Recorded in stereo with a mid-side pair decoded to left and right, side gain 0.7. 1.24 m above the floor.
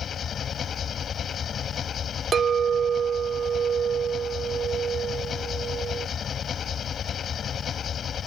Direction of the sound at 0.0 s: 35° left.